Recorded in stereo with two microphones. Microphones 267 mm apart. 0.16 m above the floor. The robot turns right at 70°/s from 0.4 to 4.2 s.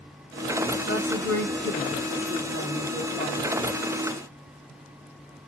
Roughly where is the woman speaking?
Ahead left.